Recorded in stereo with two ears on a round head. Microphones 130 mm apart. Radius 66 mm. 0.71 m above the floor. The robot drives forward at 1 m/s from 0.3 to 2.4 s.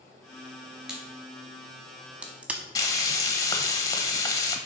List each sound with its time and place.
0.9 s a crack: 5° right (ahead or behind), 2.5 m; by 2.6 s 10° right (ahead or behind), 0.9 m
2.8 s frying: 25° left (ahead or behind), 0.8 m